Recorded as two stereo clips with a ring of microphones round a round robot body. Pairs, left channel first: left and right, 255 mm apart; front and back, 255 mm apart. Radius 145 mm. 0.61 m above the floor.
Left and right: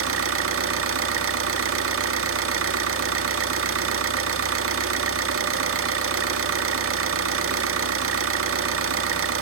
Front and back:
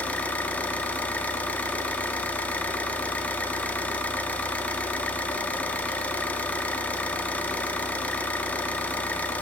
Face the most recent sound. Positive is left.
turn(degrees=-85)